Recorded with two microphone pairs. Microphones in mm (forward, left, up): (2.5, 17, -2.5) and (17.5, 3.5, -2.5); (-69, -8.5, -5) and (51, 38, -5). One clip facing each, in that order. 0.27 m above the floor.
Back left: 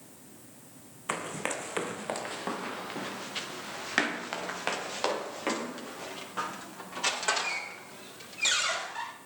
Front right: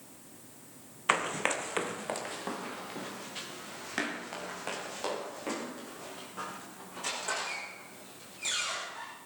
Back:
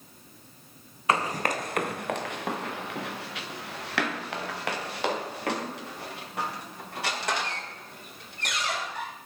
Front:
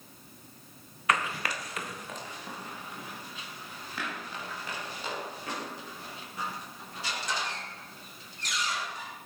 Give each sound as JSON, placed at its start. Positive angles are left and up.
{"t": 1.1, "sound": "running footsteps", "azimuth_deg": -100, "distance_m": 0.9}